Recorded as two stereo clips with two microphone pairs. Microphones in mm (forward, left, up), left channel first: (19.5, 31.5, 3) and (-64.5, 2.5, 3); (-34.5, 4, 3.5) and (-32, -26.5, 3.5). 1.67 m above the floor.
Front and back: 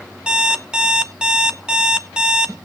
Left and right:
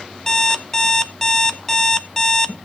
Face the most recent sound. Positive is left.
turn(degrees=140)